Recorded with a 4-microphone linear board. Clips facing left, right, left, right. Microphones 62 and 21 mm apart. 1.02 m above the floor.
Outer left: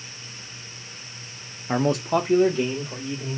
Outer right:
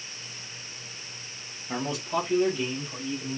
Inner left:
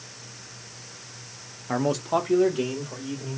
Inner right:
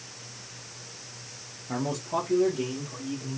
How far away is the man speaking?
About 0.5 m.